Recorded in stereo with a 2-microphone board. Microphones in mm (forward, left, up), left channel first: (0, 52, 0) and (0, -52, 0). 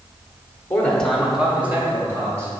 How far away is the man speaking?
About 1.0 m.